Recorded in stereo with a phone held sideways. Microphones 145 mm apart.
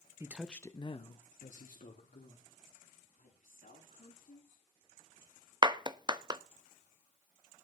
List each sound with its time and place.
0.2 s a man speaking: 20° right (ahead or behind), 1.0 m; by 2.5 s 75° left (ahead or behind), 3 m
3.2 s a woman speaking: 80° left, 9 m
5.6 s a clap: 30° right (ahead or behind), 0.6 m